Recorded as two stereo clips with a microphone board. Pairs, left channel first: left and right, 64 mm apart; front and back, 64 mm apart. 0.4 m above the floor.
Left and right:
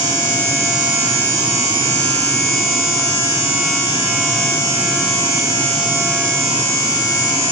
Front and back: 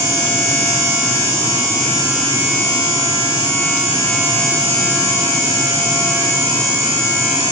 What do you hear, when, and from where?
Only background noise.